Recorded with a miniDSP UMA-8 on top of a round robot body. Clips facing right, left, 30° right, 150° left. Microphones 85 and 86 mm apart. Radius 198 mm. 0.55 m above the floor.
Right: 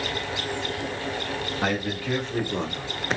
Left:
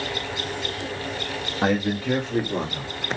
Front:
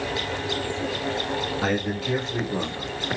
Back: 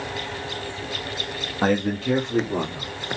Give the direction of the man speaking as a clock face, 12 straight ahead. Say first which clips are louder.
Left 6 dB, back 8 dB; 7 o'clock.